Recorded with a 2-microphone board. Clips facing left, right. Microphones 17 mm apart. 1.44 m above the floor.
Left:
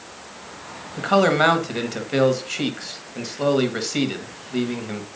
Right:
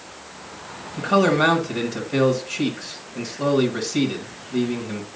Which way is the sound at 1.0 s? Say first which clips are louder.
Left 1 dB; 35° left (ahead or behind).